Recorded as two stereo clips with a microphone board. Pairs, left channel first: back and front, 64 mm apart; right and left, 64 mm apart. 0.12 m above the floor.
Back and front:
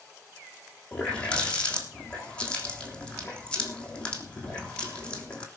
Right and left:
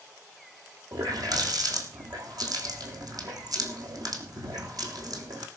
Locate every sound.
0.9 s a running tap: 105° left, 3.5 m